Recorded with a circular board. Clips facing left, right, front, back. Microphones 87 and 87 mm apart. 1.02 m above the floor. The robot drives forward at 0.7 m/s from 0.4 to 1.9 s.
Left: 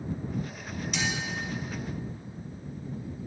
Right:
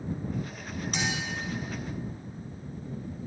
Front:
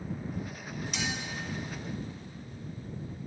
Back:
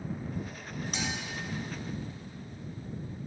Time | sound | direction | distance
0.9 | a clink | 135° right | 3.5 m